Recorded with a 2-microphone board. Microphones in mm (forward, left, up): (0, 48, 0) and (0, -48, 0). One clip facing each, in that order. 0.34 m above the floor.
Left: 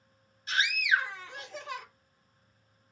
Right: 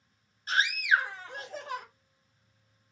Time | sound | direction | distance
0.5 | a scream | 45° right (ahead or behind) | 1.6 m